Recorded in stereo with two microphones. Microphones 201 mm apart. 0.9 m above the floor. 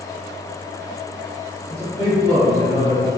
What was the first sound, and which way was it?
A man speaking, 5° left (ahead or behind).